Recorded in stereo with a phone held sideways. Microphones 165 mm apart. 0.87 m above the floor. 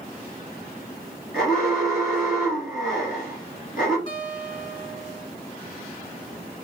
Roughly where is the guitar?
Left.